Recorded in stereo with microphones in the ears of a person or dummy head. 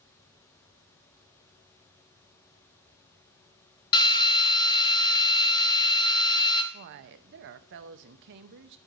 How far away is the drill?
About 1.0 m.